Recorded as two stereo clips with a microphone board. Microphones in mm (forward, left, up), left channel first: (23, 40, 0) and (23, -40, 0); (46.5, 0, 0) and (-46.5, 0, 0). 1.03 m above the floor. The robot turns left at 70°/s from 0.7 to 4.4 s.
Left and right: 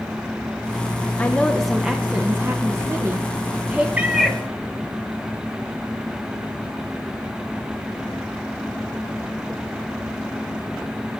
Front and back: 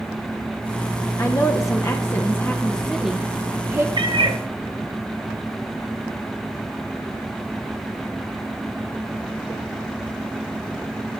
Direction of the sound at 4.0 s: 160° right.